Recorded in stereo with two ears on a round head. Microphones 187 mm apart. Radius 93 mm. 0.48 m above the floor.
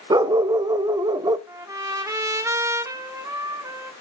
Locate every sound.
0.1 s a dog barking: 20° right (ahead or behind), 0.5 m
1.5 s a trumpet: 15° right (ahead or behind), 1.3 m